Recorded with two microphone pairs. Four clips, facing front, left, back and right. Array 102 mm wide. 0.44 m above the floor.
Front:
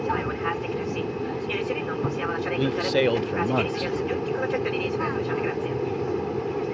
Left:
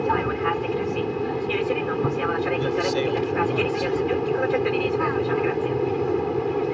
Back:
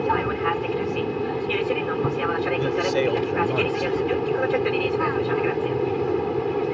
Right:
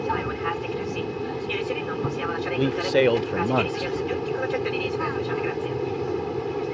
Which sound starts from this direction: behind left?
An aircraft, at 0.0 s.